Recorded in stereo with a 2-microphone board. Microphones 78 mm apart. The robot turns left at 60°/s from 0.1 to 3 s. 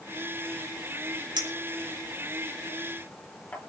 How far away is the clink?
About 4 m.